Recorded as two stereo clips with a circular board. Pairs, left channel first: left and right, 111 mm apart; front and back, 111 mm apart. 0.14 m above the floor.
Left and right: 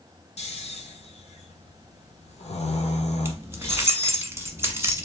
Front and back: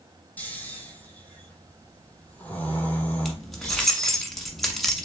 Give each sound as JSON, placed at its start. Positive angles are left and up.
{"t": 0.4, "sound": "snoring", "azimuth_deg": 75, "distance_m": 0.9}
{"t": 3.2, "sound": "keys jangling", "azimuth_deg": -85, "distance_m": 1.1}